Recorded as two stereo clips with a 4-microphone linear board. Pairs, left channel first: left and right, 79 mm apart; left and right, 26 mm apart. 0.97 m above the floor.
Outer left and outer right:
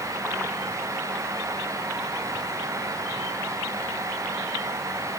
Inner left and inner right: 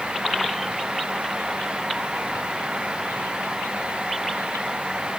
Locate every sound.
Only background noise.